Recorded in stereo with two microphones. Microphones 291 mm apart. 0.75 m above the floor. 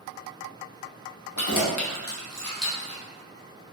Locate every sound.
1.4 s keys jangling: 75° left (ahead or behind), 0.8 m; by 3.0 s 10° right (ahead or behind), 1.3 m